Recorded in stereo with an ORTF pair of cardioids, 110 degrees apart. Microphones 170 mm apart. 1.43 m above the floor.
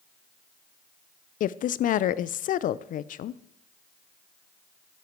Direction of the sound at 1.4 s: 50° left.